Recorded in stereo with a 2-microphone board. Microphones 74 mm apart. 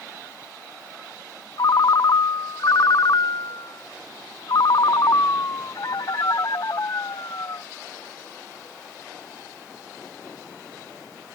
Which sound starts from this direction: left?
A ringtone, at 1.6 s.